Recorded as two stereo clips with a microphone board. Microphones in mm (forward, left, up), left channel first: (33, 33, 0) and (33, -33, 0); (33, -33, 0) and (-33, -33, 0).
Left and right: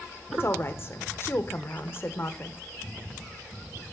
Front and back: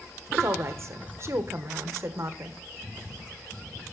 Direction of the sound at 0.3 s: 140° left.